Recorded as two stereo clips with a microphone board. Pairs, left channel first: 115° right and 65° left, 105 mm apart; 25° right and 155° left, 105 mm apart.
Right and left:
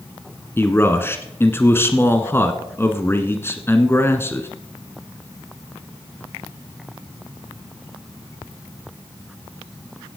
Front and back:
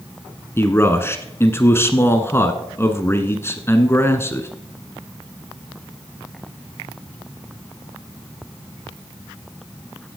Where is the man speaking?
65° right, 1.4 m.